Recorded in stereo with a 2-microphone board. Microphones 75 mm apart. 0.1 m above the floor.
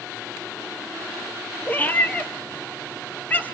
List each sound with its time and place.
1.7 s a cat meowing: 25° left (ahead or behind), 1.5 m